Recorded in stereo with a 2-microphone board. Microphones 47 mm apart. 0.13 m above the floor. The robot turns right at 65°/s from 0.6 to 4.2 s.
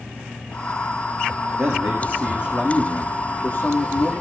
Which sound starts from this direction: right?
A man speaking, at 1.6 s.